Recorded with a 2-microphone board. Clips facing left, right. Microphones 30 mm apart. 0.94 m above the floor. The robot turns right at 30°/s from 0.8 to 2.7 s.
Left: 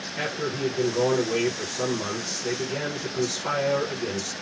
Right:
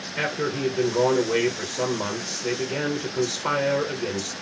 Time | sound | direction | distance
0.2 | a man speaking | 100° right | 0.9 m